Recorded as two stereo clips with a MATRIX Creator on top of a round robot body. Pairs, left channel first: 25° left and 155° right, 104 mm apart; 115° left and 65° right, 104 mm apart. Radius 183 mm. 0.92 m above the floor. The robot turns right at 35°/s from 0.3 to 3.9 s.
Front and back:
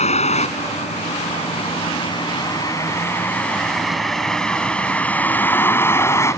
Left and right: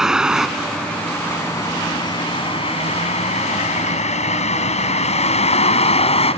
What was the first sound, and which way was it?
A vehicle, 20° left.